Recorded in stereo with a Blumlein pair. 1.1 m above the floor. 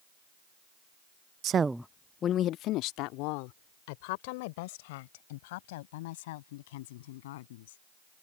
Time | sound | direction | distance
1.4 | a woman speaking | 35° right | ?